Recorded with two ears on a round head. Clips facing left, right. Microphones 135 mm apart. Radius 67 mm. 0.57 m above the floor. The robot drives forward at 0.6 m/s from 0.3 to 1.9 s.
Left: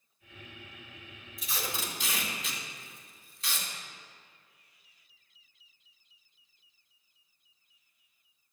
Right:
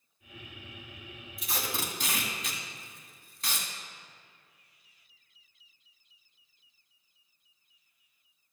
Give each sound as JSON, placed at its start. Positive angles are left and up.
{"t": 1.4, "sound": "tape being pulled", "side_deg": -45, "distance_m": 1.9}